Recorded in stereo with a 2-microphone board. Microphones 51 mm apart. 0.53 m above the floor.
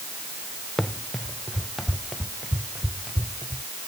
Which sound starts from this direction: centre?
Running footsteps, at 0.8 s.